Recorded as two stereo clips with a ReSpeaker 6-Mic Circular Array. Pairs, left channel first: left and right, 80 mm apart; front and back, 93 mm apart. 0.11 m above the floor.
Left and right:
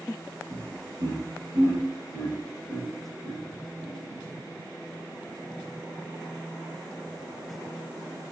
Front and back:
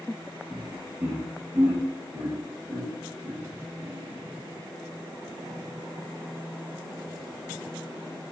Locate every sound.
0.5 s laughter: 100° right, 3.5 m